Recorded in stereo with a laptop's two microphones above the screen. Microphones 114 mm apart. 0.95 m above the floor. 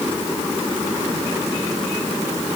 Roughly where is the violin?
No violin in this recording.